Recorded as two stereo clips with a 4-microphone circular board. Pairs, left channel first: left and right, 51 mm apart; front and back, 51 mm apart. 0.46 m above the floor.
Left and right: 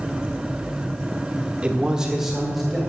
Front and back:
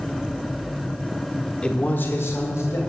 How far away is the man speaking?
About 1.1 m.